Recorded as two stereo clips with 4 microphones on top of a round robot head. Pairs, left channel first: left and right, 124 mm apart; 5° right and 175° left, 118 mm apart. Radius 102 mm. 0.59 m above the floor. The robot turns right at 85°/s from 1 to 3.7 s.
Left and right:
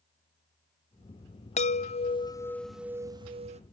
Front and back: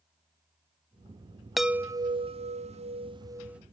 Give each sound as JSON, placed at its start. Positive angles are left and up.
{"t": 1.6, "sound": "a chime", "azimuth_deg": 80}